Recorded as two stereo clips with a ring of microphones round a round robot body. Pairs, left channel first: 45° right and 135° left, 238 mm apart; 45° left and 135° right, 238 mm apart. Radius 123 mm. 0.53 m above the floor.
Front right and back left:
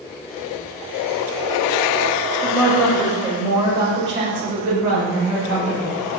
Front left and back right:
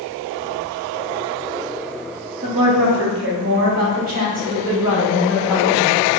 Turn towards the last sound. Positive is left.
turn(degrees=160)